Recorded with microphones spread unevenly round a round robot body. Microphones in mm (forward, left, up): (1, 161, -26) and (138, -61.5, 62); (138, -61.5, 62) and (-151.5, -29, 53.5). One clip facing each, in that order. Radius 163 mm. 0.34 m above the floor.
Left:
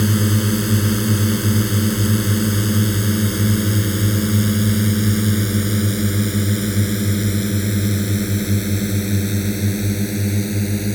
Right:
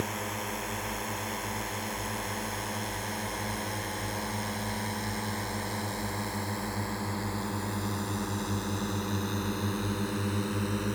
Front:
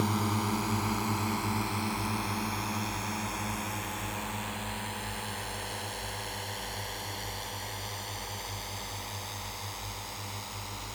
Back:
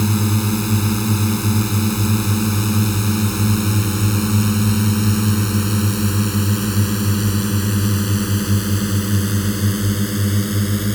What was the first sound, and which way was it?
A drone, 130° left.